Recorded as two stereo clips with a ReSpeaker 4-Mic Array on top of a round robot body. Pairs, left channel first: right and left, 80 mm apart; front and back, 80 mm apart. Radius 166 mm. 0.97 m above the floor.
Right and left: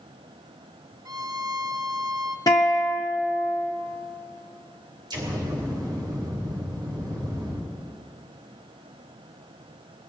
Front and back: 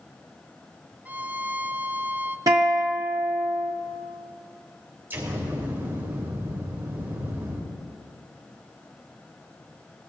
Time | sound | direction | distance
1.1 | a violin | 115° left | 0.8 m
2.5 | a guitar | 135° right | 0.7 m
5.1 | an explosion | 115° left | 3 m